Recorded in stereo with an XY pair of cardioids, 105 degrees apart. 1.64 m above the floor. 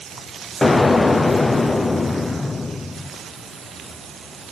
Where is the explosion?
20° left, 0.7 m.